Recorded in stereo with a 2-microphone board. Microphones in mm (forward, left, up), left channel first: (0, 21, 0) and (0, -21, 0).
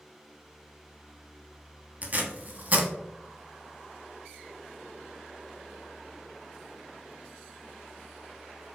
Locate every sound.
2.0 s tape being pulled: 40° right (ahead or behind), 0.6 m